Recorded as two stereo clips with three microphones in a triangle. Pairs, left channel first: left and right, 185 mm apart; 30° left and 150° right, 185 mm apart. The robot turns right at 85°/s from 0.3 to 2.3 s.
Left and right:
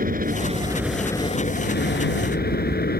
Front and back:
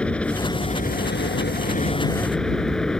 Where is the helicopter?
55° right; by 3.0 s 115° left.